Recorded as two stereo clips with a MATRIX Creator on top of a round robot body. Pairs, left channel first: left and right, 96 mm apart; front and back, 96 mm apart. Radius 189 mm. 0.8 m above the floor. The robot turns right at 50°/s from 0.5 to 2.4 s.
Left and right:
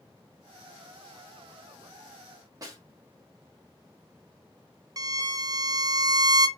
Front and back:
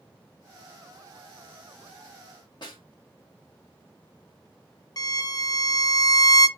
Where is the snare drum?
40° right, 1.5 m.